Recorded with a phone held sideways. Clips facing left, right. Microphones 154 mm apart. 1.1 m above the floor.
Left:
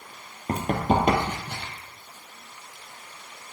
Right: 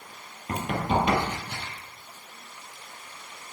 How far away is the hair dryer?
No hair dryer in this recording.